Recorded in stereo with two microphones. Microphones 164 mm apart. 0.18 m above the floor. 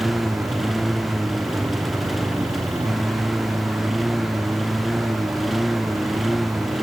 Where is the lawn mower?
Centre (ahead or behind).